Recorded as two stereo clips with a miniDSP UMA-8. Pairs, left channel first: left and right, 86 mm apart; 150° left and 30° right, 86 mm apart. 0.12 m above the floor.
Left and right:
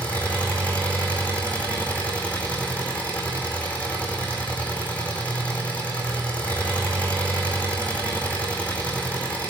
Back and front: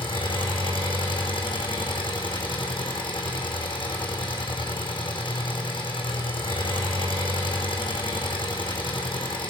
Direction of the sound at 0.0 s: 165° left.